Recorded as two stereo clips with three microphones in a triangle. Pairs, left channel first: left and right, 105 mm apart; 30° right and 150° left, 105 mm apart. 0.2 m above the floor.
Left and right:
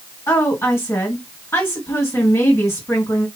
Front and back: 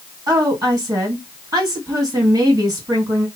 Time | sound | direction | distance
0.3 | a woman speaking | 135° left | 2.0 m